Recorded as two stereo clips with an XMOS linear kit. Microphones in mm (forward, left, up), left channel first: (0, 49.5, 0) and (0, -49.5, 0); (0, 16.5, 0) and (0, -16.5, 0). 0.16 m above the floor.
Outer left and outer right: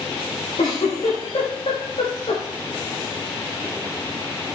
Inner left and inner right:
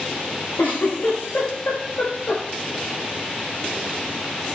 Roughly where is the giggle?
Left.